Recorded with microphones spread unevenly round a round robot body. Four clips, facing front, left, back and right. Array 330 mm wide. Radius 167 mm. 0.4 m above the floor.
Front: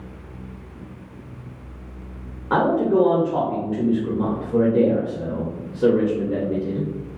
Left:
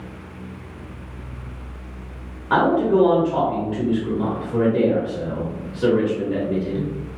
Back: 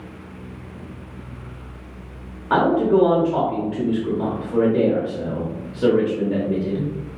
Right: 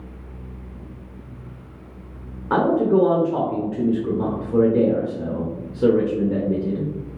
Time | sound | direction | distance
2.5 | a man speaking | 95° right | 1.0 m